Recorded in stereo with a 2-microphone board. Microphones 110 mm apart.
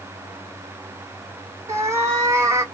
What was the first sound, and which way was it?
A cat meowing, 25° right (ahead or behind).